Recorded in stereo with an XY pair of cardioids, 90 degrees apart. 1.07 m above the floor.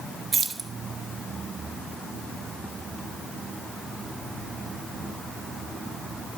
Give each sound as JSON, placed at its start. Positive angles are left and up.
{"t": 0.3, "sound": "keys jangling", "azimuth_deg": -45, "distance_m": 0.9}